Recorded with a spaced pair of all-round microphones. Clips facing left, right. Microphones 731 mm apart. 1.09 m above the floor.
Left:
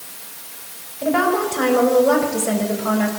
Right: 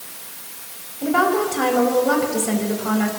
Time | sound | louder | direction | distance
1.0 | a woman speaking | even | 15° left (ahead or behind) | 4.5 m